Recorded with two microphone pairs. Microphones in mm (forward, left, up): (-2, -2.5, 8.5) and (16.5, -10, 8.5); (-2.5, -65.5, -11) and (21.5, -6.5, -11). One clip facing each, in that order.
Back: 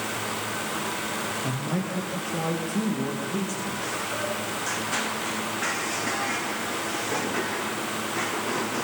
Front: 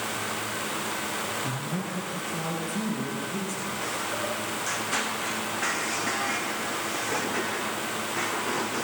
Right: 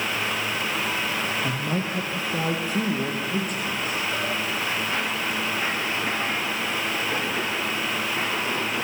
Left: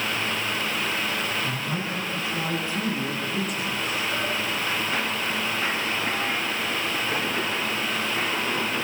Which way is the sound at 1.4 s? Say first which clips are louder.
Back 2 dB, right 2 dB; 140° right.